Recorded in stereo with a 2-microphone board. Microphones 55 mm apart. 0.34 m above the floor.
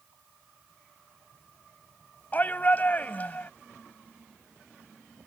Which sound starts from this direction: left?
A shout, at 2.3 s.